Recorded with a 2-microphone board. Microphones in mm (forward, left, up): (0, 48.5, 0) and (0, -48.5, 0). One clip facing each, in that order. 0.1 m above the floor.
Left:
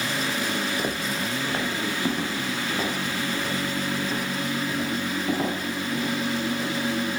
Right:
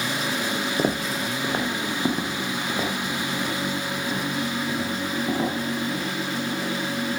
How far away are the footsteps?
About 0.6 m.